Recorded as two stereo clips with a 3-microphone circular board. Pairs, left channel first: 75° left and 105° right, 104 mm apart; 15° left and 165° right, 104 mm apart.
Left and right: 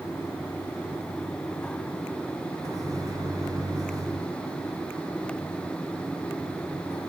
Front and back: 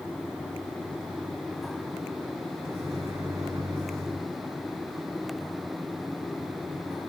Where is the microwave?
130° right, 1.6 m.